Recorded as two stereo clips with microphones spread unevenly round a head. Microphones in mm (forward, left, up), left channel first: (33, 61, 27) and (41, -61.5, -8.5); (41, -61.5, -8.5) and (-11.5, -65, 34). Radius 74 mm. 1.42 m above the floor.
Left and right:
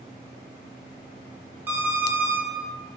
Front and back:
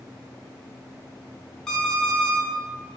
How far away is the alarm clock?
About 0.5 m.